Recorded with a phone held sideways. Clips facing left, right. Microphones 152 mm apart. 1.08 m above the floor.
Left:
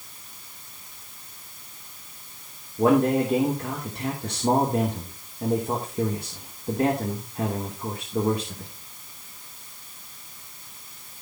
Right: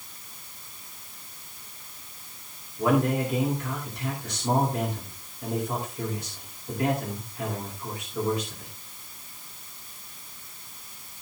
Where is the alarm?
I don't hear an alarm.